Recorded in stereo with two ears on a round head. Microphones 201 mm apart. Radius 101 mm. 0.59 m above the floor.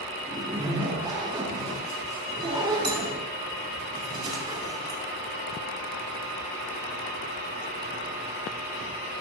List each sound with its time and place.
0.3 s a zipper: 20° right (ahead or behind), 5 m